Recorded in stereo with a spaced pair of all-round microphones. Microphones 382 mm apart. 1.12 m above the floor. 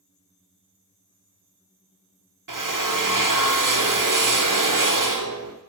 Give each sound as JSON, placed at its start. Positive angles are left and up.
{"t": 2.5, "sound": "a drill", "side_deg": -55, "distance_m": 0.8}